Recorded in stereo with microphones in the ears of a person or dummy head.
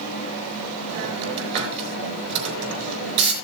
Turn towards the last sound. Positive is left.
turn(degrees=-60)  # may be behind; listen again after turning